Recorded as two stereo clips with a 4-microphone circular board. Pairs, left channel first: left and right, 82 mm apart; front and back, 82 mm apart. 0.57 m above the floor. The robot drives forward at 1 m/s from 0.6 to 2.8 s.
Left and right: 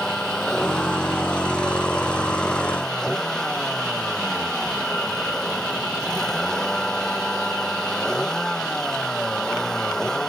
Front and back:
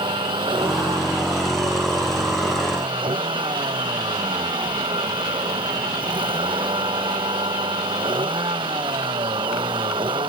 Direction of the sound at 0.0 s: 170° left.